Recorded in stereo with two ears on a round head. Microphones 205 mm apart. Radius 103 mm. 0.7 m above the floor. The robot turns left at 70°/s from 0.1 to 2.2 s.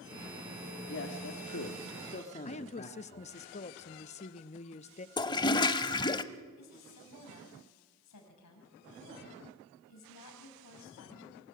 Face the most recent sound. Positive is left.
turn(degrees=75)  # may be behind; listen again after turning